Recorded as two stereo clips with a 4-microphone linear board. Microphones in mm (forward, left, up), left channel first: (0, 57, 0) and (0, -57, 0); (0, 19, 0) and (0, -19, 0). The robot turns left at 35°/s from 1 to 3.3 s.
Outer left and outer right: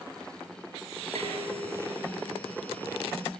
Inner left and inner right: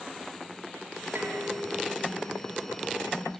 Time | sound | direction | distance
1.1 | dishes clattering | 70° right | 8 m